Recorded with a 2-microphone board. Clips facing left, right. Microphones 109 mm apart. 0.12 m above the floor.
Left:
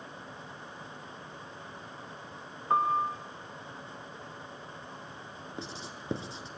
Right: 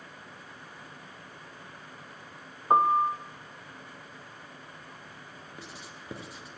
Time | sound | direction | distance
2.7 | a piano | 30° right (ahead or behind) | 0.8 m
5.6 | writing | 25° left (ahead or behind) | 1.2 m